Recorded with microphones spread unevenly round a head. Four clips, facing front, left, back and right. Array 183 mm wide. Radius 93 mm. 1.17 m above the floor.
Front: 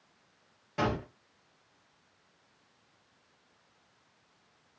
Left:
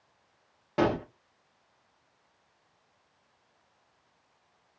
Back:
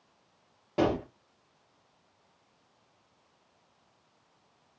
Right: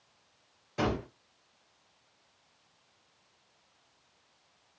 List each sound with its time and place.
0.8 s a gunshot: 125° left, 1.0 m